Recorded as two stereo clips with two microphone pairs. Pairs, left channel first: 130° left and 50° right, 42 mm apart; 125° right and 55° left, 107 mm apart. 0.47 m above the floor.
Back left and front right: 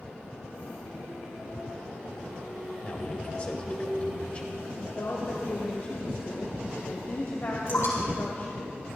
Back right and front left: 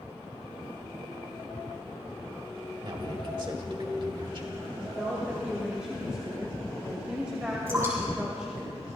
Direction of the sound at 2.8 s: 75° left.